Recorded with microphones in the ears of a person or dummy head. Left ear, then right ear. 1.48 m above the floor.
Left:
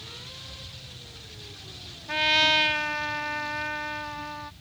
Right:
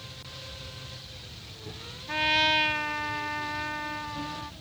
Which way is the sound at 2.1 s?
5° left (ahead or behind).